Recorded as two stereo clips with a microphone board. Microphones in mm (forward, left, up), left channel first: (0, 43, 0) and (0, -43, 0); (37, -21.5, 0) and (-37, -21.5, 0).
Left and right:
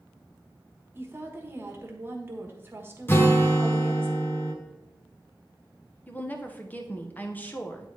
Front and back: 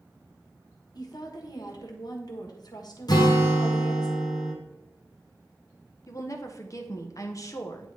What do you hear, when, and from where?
0.9 s a woman speaking: 25° right, 1.3 m
3.1 s a guitar: 25° left, 1.0 m
6.1 s a woman speaking: 25° left, 0.9 m